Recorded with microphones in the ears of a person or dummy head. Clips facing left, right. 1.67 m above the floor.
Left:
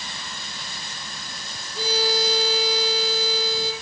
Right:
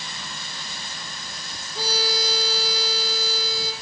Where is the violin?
75° right (ahead or behind), 5.5 m.